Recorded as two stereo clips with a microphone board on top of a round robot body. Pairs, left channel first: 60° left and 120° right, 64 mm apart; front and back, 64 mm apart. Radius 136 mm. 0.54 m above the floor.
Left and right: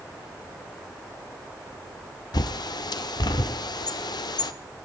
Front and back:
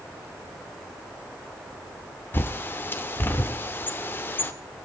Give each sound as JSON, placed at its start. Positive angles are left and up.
{"t": 2.3, "sound": "a bird", "azimuth_deg": 60, "distance_m": 0.8}